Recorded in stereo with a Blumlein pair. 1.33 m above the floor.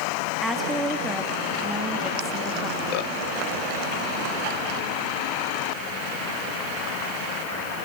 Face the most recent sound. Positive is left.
turn(degrees=0)